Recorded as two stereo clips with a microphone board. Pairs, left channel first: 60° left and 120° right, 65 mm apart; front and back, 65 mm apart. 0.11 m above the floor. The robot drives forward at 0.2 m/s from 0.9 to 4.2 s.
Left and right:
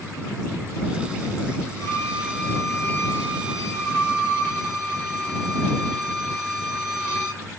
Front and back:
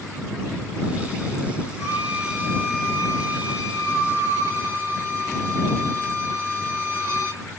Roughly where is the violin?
Behind.